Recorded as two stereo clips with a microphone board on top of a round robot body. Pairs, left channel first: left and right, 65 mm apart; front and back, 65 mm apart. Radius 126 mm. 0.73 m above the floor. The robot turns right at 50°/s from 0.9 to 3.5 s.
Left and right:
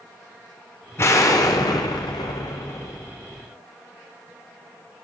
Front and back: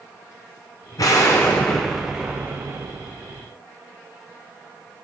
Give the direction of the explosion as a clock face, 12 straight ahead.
11 o'clock.